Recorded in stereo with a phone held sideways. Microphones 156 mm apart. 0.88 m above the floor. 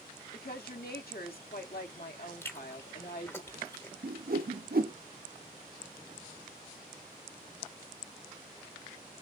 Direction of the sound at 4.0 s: 75° right (ahead or behind).